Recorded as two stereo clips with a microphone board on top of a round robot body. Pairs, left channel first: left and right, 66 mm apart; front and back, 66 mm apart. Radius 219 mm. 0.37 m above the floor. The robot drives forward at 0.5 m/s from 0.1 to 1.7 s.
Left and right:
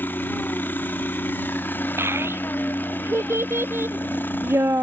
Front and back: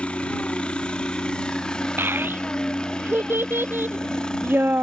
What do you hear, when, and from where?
0.0 s a helicopter: 60° left; by 4.8 s 70° left
2.0 s a child speaking: 130° right